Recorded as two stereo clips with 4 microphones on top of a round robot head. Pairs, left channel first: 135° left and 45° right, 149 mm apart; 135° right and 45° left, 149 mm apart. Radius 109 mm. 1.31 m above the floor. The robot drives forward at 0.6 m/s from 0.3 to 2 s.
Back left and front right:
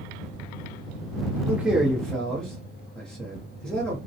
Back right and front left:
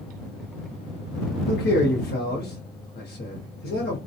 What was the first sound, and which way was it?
A man speaking, 120° right.